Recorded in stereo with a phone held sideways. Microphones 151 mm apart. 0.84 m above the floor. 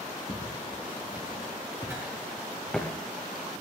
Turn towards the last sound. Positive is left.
turn(degrees=10)  # may be behind; listen again after turning